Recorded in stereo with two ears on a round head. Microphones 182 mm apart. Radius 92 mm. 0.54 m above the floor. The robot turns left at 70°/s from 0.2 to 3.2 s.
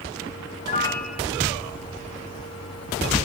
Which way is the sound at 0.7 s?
30° left.